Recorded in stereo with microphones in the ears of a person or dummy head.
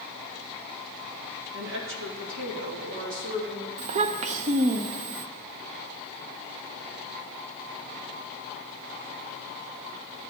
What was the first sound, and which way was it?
A woman speaking, 70° right (ahead or behind).